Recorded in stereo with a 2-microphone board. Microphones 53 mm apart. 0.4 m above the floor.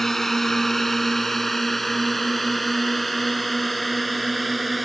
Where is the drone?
5° left (ahead or behind); by 4.8 s centre (ahead or behind).